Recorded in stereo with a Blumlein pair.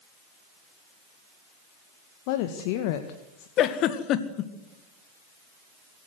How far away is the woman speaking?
About 1.8 m.